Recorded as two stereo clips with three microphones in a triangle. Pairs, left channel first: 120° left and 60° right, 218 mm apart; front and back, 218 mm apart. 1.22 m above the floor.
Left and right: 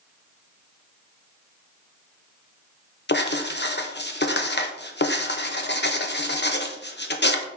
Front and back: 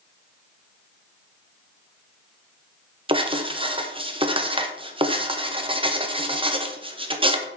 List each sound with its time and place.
3.1 s writing: 120° left, 0.8 m